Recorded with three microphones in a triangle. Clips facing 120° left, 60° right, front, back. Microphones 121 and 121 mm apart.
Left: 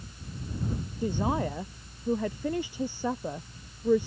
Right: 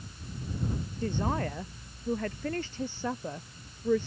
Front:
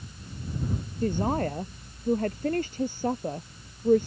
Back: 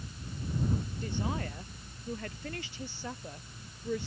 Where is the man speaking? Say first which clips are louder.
Left 3 dB, front 9 dB; 40° left.